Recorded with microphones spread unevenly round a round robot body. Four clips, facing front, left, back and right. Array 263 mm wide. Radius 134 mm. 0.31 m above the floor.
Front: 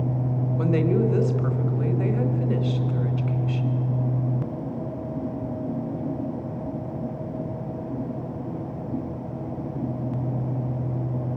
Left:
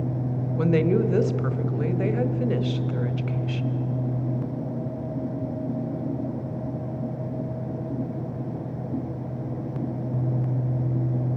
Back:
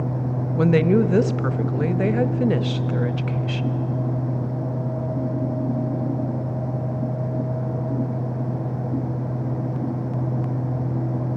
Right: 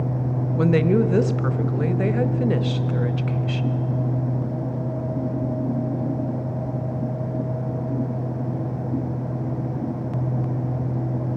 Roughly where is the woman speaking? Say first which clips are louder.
Right 3 dB, back 5 dB; behind.